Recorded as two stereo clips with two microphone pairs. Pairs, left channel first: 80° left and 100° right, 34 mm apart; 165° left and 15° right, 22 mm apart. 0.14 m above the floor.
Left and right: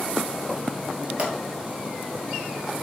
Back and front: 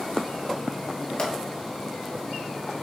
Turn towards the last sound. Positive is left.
turn(degrees=-150)